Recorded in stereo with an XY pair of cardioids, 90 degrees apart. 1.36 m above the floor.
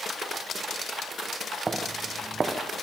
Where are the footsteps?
40° right, 6 m.